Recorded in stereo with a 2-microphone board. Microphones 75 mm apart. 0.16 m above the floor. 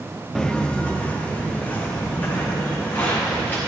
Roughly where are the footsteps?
Centre.